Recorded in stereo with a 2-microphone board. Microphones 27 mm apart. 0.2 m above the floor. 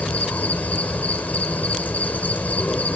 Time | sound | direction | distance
0.0 | an insect | 80° left | 1.8 m